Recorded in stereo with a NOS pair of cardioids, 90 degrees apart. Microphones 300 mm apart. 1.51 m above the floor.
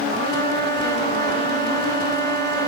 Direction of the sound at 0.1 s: 35° right.